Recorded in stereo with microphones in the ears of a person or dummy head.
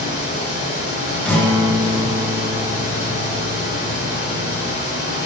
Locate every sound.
0.0 s a fan: 50° left (ahead or behind), 1.8 m
1.2 s a guitar: 5° left (ahead or behind), 0.8 m